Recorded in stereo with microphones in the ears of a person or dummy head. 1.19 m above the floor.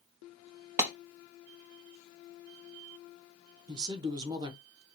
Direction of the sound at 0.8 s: 15° right (ahead or behind).